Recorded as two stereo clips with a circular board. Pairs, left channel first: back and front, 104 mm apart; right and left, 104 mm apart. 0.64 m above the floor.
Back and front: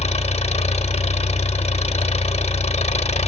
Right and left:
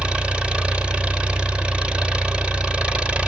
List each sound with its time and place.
0.0 s an engine running: 170° left, 0.8 m